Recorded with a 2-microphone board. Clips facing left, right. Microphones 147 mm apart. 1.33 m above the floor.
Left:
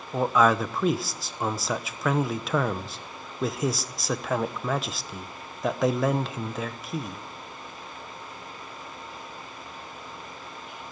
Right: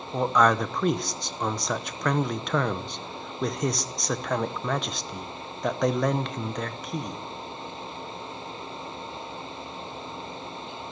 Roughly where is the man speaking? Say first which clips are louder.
Even; centre.